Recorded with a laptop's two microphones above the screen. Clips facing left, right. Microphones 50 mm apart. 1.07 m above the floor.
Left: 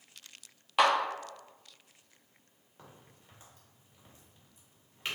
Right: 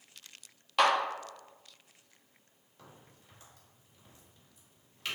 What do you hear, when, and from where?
0.8 s a clap: 10° left (ahead or behind), 1.6 m
2.8 s a crack: 25° left (ahead or behind), 2.0 m